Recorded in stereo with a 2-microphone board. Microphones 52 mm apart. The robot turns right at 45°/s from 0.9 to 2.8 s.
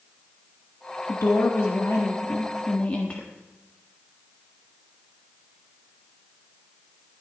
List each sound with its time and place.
1.1 s a woman speaking: 75° left, 1.4 m; by 3.3 s 150° left, 1.4 m